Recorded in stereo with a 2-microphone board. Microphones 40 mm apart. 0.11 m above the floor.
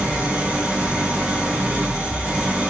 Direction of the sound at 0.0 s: 45° right (ahead or behind).